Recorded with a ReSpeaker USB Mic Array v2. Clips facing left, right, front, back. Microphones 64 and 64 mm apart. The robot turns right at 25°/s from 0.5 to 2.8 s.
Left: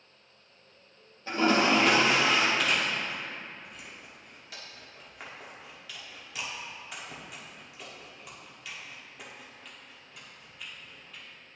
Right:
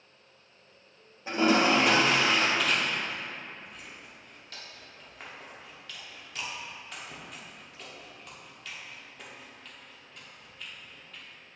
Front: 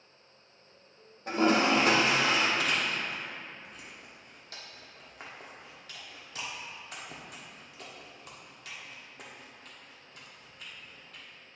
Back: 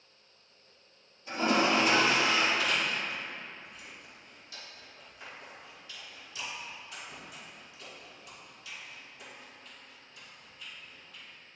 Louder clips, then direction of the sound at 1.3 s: Right 1 dB, front 2 dB; 20° right.